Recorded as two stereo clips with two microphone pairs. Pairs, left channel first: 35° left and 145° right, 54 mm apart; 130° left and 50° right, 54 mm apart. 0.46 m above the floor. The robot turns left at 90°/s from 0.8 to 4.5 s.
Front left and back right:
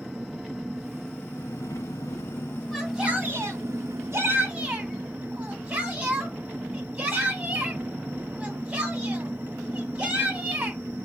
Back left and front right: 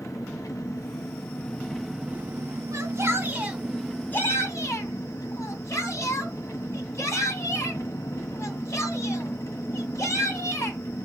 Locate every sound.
0.0 s an engine running: 135° left, 1.1 m; by 11.1 s 165° left, 1.1 m
2.7 s a shout: 45° right, 2.5 m; by 10.8 s 155° left, 2.5 m